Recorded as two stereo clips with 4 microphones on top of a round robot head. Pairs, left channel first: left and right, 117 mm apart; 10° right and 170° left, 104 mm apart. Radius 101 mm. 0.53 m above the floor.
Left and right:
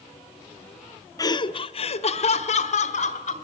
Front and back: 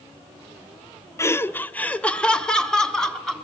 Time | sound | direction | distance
1.2 | laughter | 45° left | 0.9 m